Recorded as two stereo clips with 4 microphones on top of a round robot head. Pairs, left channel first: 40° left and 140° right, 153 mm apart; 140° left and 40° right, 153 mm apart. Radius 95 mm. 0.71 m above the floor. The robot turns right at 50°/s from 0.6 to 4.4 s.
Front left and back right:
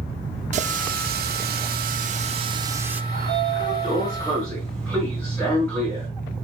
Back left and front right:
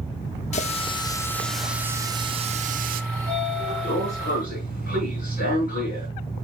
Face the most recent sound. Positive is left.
turn(degrees=125)